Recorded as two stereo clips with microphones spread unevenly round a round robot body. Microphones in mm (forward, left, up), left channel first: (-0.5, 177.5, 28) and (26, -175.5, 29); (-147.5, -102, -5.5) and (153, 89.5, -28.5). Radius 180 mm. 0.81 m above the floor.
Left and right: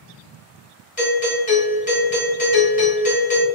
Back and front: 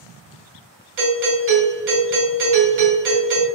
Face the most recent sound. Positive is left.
turn(degrees=45)